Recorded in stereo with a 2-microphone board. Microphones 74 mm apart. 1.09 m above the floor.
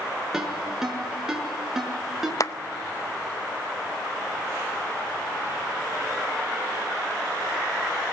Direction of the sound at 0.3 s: 5° right (ahead or behind).